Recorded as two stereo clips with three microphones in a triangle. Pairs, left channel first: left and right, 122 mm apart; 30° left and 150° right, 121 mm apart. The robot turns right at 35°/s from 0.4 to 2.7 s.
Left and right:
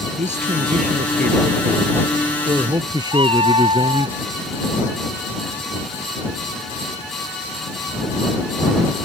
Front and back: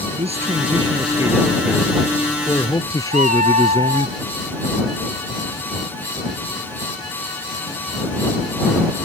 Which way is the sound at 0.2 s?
115° right.